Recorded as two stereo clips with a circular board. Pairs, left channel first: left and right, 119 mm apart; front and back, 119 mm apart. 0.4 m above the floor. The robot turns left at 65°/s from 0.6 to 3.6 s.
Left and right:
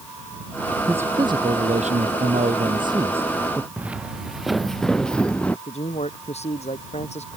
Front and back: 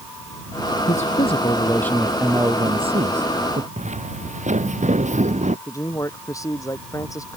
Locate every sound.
0.9 s a man speaking: 10° right; by 3.7 s 170° left
3.8 s footsteps: 170° right; by 5.6 s 170° left
5.7 s a man speaking: 65° left